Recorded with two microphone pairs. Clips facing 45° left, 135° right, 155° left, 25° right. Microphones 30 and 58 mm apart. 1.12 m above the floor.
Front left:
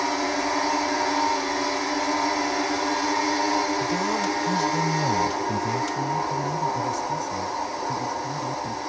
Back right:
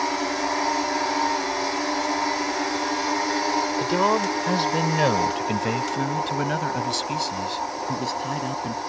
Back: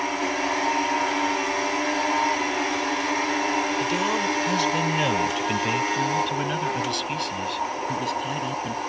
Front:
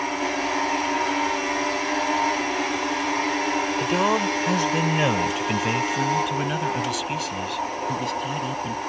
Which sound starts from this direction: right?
A man speaking, at 3.8 s.